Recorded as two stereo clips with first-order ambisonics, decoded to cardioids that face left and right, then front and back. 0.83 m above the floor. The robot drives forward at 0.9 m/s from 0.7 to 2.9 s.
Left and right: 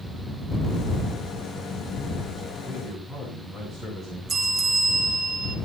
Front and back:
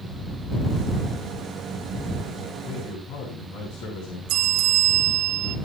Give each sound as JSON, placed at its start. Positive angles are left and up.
{"t": 2.6, "sound": "a man speaking", "azimuth_deg": -10, "distance_m": 8.5}
{"t": 4.3, "sound": "a bell", "azimuth_deg": -160, "distance_m": 2.0}